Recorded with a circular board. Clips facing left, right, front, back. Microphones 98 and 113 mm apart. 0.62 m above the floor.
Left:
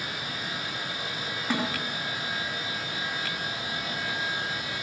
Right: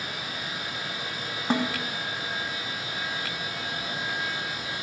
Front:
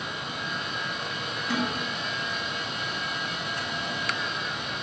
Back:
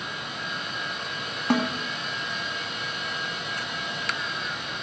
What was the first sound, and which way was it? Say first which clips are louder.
A snare drum: right 3 dB, back 5 dB; 150° right.